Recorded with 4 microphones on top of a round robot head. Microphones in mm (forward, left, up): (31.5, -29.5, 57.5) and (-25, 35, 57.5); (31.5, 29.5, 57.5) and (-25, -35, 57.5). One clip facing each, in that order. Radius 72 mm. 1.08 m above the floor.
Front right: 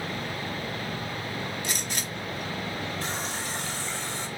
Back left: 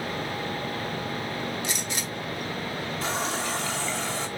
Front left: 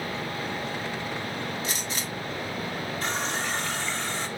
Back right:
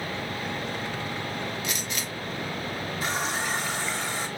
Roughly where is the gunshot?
Ahead.